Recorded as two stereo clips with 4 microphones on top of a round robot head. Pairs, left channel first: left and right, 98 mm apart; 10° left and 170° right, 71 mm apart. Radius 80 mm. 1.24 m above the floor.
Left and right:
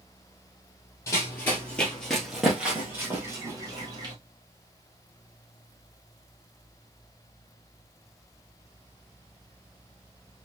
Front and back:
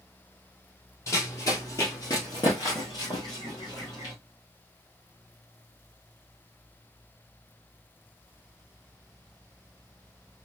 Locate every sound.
1.1 s running footsteps: 40° left, 1.6 m; by 4.1 s 50° right, 1.8 m